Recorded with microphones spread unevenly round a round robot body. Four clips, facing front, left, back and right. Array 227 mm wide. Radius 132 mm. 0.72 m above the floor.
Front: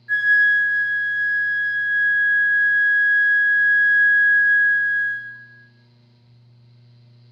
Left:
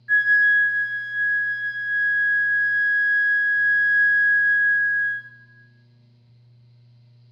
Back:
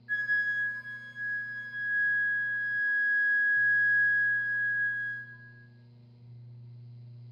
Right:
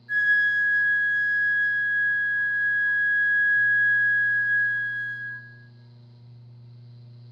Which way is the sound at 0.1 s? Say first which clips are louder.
Left 4 dB, front 13 dB; 65° left.